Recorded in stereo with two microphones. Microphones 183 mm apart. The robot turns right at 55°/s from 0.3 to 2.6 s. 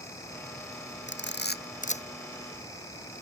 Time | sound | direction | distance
1.1 | a camera shutter | 85° left | ?